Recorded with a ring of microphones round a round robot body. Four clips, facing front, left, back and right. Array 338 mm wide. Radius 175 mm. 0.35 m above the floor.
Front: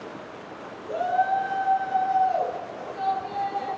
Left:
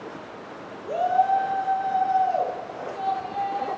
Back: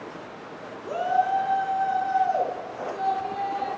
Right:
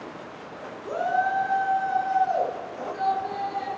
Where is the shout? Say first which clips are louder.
Left 4 dB, even; 140° right, 4.5 m.